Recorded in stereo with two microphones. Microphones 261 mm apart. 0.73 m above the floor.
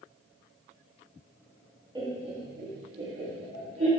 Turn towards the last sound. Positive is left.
turn(degrees=-65)  # may be behind; listen again after turning